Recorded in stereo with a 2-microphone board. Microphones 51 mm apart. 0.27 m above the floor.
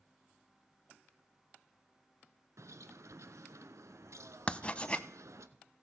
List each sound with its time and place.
2.6 s a bird: 85° right, 0.7 m
4.5 s writing: 20° left (ahead or behind), 0.5 m